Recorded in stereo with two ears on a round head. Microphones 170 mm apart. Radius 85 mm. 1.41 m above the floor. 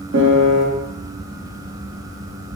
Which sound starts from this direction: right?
A piano, at 0.1 s.